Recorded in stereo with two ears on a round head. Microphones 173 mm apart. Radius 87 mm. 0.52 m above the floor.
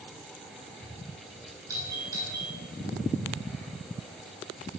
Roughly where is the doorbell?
Centre.